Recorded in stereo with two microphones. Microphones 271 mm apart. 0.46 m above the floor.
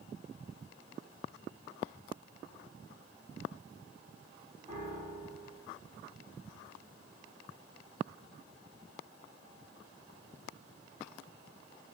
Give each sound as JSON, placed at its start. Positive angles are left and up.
{"t": 4.7, "sound": "a piano", "side_deg": -20, "distance_m": 2.5}